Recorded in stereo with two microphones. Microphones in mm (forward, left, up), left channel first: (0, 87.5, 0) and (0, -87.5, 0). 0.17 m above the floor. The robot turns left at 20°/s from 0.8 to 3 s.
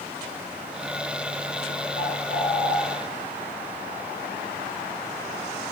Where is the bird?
50° left (ahead or behind), 4.5 m; by 2.8 s 65° left (ahead or behind), 4.5 m.